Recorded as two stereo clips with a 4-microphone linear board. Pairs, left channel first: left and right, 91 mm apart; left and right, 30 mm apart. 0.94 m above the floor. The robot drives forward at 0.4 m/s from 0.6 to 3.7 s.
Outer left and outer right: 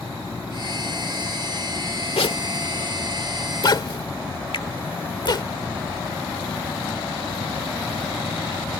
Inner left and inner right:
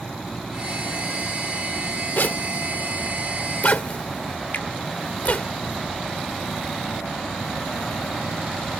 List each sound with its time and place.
2.2 s a zipper: 70° left (ahead or behind); by 5.5 s 50° left (ahead or behind)
4.5 s a finger snap: 65° left (ahead or behind)